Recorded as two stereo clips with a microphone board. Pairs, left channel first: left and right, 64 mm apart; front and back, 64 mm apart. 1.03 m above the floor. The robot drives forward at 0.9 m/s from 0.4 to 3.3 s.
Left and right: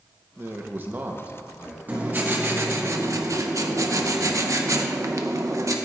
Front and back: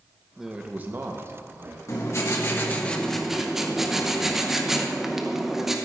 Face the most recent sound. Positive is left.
turn(degrees=-95)